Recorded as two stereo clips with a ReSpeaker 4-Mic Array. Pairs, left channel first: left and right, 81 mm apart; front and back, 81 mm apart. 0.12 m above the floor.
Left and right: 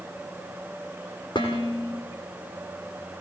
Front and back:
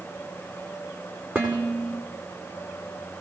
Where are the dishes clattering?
110° left, 6 m.